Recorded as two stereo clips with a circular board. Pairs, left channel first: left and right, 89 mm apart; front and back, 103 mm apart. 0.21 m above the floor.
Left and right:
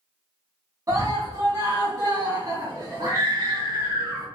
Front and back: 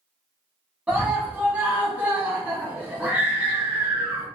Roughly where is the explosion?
No explosion in this recording.